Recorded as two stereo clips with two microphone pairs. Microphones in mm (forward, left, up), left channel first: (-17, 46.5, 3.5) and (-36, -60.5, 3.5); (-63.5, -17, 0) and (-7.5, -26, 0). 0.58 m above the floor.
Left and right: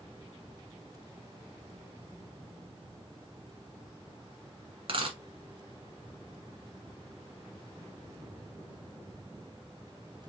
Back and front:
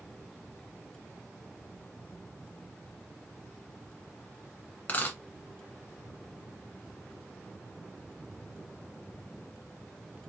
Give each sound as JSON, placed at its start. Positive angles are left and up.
{"t": 4.9, "sound": "a dropped coin", "azimuth_deg": -135, "distance_m": 1.1}